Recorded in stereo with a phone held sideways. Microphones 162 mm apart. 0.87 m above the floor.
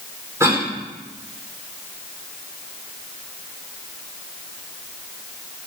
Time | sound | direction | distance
0.4 | a cough | 15° right (ahead or behind) | 2.5 m